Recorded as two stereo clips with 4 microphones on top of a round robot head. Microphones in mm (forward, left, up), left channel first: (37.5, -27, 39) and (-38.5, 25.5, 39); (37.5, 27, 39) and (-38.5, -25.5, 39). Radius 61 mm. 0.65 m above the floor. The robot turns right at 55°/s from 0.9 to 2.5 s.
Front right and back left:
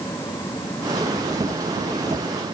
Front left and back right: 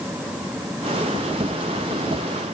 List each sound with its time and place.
Only background noise.